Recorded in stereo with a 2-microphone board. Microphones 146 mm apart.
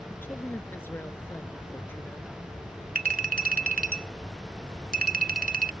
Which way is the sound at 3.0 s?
75° right (ahead or behind).